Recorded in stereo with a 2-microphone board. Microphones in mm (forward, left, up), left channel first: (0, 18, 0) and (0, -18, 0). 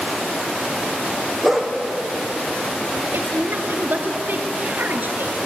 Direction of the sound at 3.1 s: 55° right (ahead or behind).